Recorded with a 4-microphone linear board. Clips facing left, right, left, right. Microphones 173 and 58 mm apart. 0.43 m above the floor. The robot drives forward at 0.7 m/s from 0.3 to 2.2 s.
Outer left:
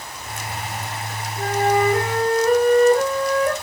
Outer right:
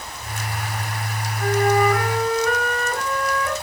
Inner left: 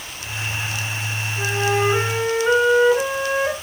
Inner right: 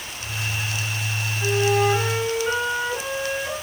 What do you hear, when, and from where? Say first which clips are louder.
1.4 s a flute: outer right 1 dB, even; 30° left (ahead or behind), 4 m